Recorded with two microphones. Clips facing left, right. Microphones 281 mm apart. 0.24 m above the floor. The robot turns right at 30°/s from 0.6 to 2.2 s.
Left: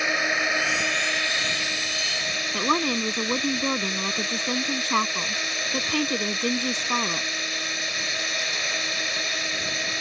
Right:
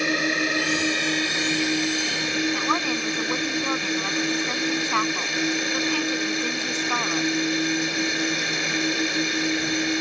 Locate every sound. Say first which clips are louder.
0.0 s a drone: right 6 dB; 135° right; by 10.0 s 85° right
2.5 s a woman speaking: left 1 dB; 45° left (ahead or behind)